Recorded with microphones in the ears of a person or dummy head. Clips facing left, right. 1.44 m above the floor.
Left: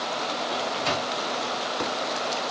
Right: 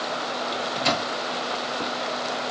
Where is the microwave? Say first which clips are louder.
Right 3 dB; 50° right (ahead or behind), 1.0 m.